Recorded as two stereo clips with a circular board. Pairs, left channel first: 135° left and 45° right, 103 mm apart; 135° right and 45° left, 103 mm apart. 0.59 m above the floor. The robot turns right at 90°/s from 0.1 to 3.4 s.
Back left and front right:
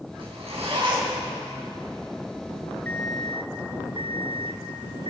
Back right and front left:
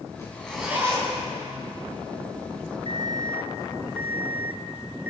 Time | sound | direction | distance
0.2 | a zipper | 80° right | 4.5 m
2.9 | an alarm clock | 65° left | 1.4 m